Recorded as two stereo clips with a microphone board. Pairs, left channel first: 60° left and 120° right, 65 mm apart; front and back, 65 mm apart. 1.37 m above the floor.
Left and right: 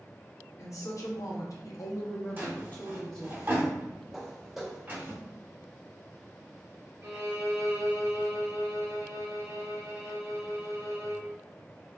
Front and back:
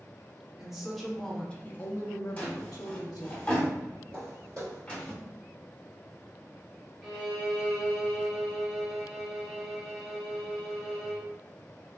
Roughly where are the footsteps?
Behind.